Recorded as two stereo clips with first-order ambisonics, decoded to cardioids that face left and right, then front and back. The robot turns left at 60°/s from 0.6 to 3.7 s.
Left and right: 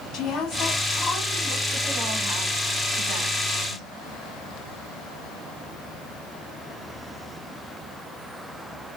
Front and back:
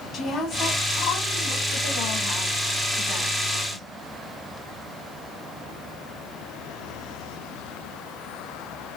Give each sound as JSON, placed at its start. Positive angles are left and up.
{"t": 0.1, "sound": "a woman speaking", "azimuth_deg": 60, "distance_m": 1.5}